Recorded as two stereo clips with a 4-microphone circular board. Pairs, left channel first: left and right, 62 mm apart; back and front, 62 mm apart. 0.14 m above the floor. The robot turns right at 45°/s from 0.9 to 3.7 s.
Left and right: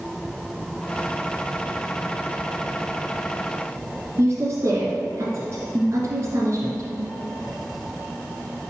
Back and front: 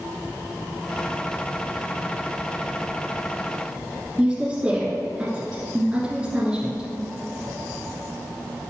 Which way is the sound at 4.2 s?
70° right.